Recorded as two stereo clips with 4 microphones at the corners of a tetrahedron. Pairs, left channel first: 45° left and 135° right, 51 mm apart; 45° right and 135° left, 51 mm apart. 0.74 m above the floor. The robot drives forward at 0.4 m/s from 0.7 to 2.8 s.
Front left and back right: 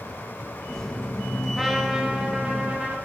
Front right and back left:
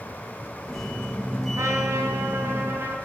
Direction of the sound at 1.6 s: 140° left.